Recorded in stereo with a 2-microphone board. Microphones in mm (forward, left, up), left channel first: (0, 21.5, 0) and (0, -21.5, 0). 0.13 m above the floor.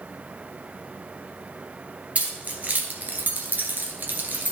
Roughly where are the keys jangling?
Right.